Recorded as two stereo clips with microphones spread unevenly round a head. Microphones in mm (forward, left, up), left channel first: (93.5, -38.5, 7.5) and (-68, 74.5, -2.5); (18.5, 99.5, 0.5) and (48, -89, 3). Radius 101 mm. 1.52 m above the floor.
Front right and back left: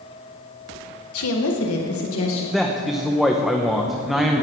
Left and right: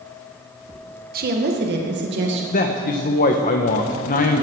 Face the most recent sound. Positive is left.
turn(degrees=55)